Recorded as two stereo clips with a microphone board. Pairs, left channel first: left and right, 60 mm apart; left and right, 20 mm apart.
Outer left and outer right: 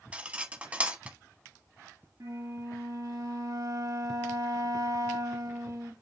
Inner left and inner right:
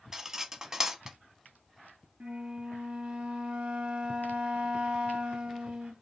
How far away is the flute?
About 1.0 m.